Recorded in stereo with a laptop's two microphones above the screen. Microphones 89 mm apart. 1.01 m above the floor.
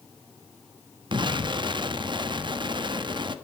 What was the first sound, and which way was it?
An explosion, 60° right (ahead or behind).